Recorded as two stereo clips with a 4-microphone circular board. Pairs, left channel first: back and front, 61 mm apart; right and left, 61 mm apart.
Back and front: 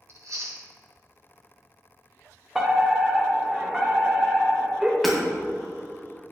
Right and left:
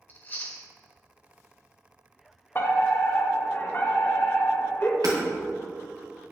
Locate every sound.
0.1 s chewing: 30° right, 1.7 m
2.5 s a fire alarm: 80° right, 2 m
5.0 s hammering: 90° left, 2.5 m